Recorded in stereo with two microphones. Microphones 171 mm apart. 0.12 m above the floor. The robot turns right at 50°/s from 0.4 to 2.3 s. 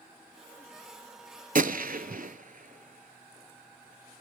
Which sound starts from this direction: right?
A gunshot, at 1.6 s.